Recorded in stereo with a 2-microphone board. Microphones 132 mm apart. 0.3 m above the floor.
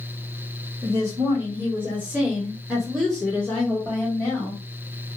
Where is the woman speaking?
25° right (ahead or behind), 1.6 m; by 4.6 s 20° left (ahead or behind), 1.8 m.